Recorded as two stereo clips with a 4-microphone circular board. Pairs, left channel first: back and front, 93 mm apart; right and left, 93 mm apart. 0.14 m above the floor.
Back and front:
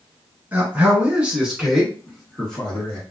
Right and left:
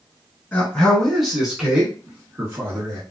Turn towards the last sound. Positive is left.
turn(degrees=115)